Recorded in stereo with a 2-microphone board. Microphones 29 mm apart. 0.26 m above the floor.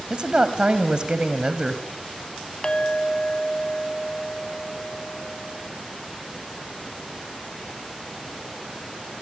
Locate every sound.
0.1 s a woman speaking: 35° right (ahead or behind), 1.6 m
2.6 s a clink: 35° left (ahead or behind), 1.2 m